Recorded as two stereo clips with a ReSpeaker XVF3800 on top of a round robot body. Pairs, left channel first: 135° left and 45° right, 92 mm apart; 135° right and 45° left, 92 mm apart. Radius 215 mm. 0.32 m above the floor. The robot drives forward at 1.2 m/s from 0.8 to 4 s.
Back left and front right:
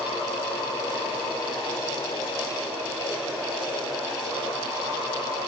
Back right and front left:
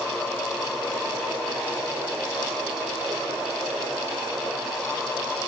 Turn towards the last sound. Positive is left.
No sound to turn to.